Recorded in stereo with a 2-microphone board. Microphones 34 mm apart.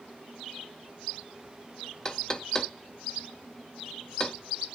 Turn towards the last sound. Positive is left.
turn(degrees=20)  # may be behind; listen again after turning